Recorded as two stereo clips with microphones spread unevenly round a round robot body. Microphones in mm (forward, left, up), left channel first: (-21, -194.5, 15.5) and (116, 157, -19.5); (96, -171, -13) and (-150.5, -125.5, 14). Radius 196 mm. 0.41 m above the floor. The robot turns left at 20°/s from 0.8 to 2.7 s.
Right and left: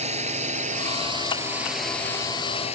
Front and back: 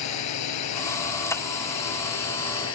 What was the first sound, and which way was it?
A drone, 5° right.